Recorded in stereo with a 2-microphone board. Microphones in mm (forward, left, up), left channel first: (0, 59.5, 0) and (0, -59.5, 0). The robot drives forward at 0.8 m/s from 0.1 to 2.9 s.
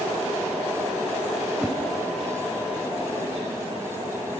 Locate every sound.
1.6 s a whoosh: centre (ahead or behind), 1.7 m